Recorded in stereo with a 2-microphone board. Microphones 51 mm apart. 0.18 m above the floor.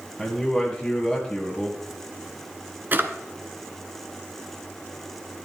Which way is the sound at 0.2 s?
10° left (ahead or behind).